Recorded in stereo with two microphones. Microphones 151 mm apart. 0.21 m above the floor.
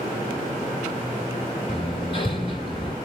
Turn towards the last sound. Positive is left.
turn(degrees=35)  # may be behind; listen again after turning